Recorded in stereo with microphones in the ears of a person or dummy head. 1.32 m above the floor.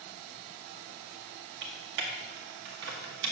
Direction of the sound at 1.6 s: 70° right (ahead or behind).